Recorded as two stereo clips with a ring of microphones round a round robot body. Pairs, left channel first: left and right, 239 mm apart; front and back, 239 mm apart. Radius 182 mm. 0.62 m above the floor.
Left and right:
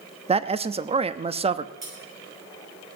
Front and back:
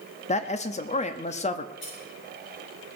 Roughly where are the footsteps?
I don't hear footsteps.